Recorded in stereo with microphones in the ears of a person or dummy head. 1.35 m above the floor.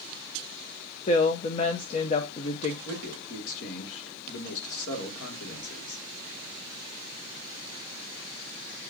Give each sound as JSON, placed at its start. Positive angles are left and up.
{"t": 1.1, "sound": "a woman speaking", "side_deg": 35, "distance_m": 0.8}
{"t": 2.9, "sound": "a man speaking", "side_deg": 75, "distance_m": 2.5}